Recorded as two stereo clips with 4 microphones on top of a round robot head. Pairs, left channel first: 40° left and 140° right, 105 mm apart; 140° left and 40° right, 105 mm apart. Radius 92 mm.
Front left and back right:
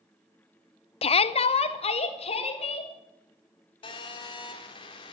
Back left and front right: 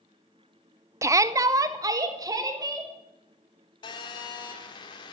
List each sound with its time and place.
1.0 s a shout: 20° left, 0.5 m; by 2.9 s 15° left, 3 m
3.8 s a phone buzzing: 85° left, 1.7 m